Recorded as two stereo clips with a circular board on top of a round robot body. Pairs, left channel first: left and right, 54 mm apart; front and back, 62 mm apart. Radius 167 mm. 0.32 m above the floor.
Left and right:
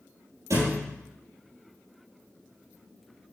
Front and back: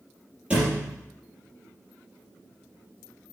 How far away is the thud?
About 3 m.